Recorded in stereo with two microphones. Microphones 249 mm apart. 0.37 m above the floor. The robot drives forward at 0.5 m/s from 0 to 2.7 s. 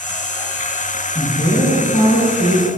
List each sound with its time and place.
1.1 s a woman speaking: 30° left (ahead or behind), 2.5 m; by 2.7 s 20° left (ahead or behind), 3 m